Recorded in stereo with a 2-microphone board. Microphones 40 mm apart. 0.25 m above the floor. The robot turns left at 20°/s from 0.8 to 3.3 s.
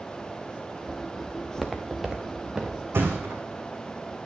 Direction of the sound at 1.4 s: 10° right (ahead or behind).